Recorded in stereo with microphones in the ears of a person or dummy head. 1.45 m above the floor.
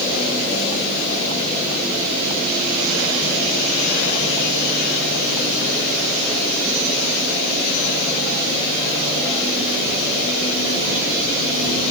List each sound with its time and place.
Only background noise.